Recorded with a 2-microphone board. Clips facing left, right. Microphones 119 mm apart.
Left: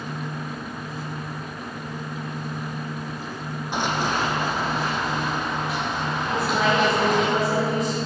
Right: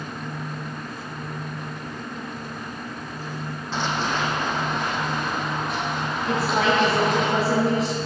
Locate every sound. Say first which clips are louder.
3.7 s running footsteps: left 1 dB; 15° left (ahead or behind), 1.1 m; by 7.3 s 5° left (ahead or behind), 3 m
6.3 s a woman speaking: right 1 dB; 75° right (ahead or behind), 3.5 m